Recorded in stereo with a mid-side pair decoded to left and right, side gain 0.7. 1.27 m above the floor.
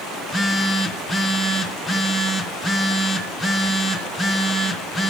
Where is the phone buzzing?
10° left, 0.8 m.